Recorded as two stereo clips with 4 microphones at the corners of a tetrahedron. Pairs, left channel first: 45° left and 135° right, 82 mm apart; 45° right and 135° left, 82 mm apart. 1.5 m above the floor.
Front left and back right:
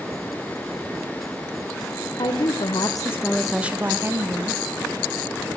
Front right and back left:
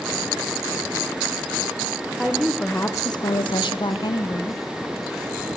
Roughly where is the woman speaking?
Ahead left.